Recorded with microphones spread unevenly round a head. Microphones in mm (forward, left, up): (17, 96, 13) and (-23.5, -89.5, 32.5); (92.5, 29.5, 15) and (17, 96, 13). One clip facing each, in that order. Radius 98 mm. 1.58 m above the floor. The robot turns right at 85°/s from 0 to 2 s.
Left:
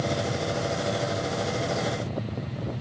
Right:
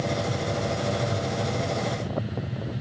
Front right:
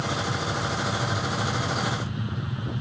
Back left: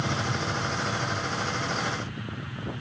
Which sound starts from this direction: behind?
An aircraft, at 0.0 s.